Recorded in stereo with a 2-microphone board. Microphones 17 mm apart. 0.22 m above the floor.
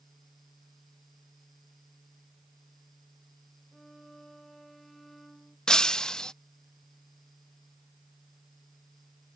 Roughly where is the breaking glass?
Left.